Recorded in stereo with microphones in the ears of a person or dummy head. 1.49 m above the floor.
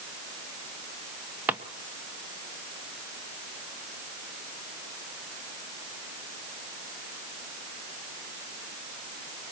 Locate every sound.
1.5 s a drawer: 10° right (ahead or behind), 1.0 m